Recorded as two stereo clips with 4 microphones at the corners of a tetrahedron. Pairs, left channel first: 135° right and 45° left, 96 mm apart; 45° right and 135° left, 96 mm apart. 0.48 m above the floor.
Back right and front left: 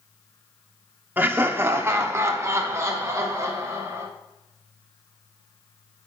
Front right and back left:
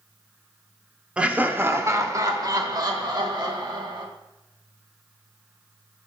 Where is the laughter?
75° left, 0.8 m; by 4.0 s 105° left, 2.0 m.